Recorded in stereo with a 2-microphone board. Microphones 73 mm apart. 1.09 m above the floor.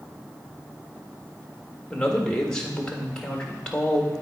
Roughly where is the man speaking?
Centre.